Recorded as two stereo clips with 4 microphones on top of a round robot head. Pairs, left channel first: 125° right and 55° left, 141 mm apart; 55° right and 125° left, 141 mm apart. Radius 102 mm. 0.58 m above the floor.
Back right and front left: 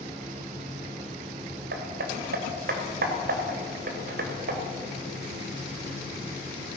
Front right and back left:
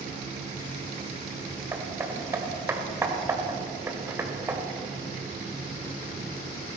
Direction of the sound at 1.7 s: 55° left.